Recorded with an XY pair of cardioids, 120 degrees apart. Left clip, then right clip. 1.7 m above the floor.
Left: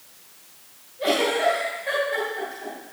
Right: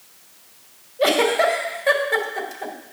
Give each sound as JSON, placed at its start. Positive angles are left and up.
{"t": 1.0, "sound": "a giggle", "azimuth_deg": -60, "distance_m": 2.0}